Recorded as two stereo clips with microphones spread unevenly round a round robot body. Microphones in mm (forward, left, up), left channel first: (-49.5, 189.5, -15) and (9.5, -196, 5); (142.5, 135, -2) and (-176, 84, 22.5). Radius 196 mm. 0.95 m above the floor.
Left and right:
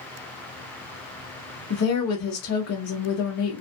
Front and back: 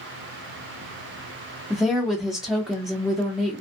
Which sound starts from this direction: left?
A woman speaking, at 1.7 s.